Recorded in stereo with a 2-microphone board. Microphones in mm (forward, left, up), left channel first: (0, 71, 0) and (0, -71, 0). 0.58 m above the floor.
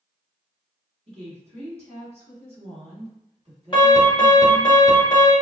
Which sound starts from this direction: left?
An alarm, at 3.7 s.